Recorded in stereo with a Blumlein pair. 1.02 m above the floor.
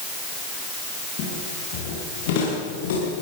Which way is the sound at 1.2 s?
45° left.